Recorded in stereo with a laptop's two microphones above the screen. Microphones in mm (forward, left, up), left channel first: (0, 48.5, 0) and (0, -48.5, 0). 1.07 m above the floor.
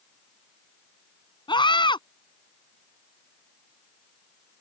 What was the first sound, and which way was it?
A scream, 55° left (ahead or behind).